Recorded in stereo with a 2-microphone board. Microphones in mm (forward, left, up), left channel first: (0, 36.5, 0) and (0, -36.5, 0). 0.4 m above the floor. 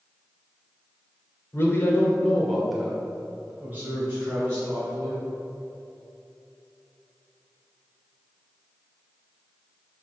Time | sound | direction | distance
1.5 | a man speaking | 35° left (ahead or behind) | 1.7 m